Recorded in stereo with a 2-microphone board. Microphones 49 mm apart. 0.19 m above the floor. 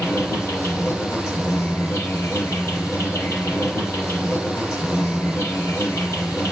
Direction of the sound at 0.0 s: 55° left (ahead or behind).